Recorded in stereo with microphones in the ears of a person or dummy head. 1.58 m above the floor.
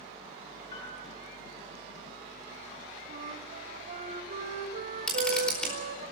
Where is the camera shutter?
5° left (ahead or behind), 4.5 m.